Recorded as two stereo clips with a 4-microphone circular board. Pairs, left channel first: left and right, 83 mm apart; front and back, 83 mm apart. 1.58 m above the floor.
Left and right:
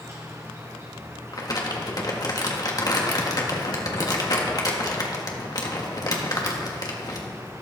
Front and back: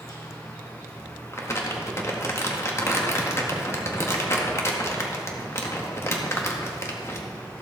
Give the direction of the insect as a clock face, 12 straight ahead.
1 o'clock.